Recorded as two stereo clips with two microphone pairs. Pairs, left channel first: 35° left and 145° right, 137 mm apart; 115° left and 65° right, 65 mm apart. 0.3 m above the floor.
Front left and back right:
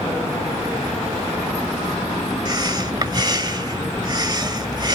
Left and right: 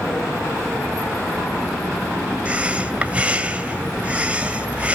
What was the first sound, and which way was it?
Breathing, 120° right.